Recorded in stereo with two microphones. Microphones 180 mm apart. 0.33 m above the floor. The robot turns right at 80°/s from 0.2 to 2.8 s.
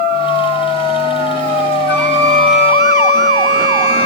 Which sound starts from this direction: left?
A flute, at 1.9 s.